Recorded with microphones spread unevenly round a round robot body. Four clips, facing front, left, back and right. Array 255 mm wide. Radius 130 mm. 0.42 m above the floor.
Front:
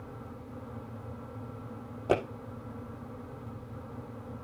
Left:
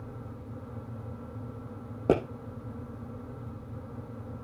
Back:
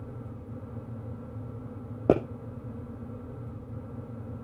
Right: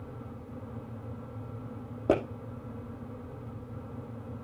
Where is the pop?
170° left, 5.5 m.